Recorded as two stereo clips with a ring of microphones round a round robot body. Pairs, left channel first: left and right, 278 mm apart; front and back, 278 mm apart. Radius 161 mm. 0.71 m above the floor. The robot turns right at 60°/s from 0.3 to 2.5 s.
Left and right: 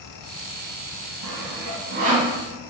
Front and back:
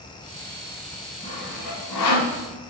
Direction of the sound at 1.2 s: 75° right.